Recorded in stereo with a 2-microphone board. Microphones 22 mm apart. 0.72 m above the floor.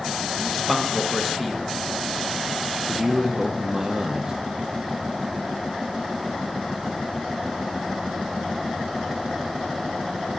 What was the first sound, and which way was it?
A man speaking, centre (ahead or behind).